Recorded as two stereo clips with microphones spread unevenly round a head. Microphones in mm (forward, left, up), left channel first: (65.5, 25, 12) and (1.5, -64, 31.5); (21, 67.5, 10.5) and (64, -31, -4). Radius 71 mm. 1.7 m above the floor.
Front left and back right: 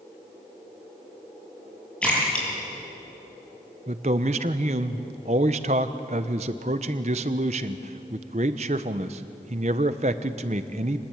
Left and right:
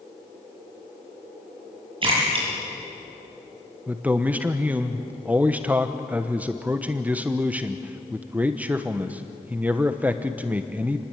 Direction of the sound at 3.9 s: 150° right.